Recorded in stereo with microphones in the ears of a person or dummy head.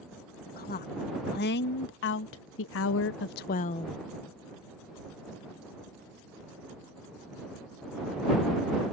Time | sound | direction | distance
0.5 | a woman speaking | 40° left (ahead or behind) | ?